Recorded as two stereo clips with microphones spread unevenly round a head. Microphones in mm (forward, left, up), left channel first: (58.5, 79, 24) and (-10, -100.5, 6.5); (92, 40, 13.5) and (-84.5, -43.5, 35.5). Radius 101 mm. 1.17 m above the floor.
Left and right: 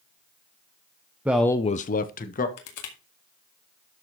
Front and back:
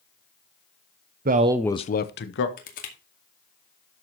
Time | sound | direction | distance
1.2 | a man speaking | 175° left | 0.8 m
2.6 | crushing | 75° left | 2 m